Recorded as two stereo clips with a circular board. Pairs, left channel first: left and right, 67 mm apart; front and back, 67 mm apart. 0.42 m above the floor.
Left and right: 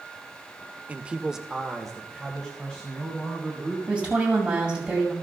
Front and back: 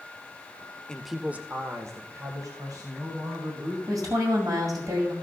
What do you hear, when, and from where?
0.9 s a man speaking: 55° right, 0.8 m; by 3.8 s 165° left, 3 m
3.9 s a woman speaking: 170° right, 2.5 m